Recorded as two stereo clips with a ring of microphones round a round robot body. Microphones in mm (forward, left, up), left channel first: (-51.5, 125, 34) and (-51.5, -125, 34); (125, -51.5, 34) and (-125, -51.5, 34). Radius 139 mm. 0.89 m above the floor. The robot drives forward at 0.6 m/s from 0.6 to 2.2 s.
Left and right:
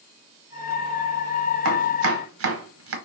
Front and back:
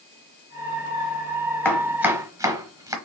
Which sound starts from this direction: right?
Chopping, at 1.6 s.